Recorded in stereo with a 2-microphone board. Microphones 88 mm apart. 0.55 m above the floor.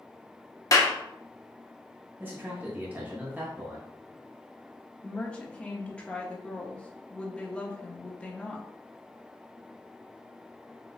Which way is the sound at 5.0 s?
15° left (ahead or behind).